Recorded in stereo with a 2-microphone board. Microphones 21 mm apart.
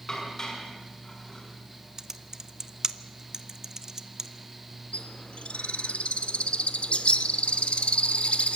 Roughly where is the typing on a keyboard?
Right.